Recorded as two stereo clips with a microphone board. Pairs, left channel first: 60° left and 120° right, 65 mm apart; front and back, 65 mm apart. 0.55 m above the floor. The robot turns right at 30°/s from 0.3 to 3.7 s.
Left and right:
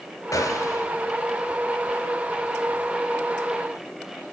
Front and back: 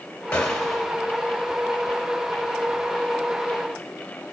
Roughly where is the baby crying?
No baby crying in this recording.